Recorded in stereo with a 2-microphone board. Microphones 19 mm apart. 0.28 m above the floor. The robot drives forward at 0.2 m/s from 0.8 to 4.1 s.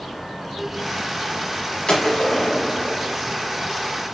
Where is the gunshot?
50° left (ahead or behind), 1.0 m; by 3.1 s 45° left (ahead or behind), 1.1 m.